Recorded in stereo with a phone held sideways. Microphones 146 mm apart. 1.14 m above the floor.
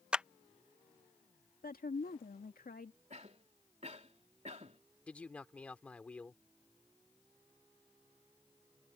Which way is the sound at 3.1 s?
45° right (ahead or behind).